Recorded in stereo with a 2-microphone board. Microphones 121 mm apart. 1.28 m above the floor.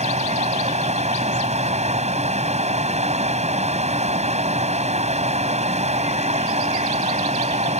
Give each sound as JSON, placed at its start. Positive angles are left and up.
{"t": 0.0, "sound": "running water", "side_deg": -65}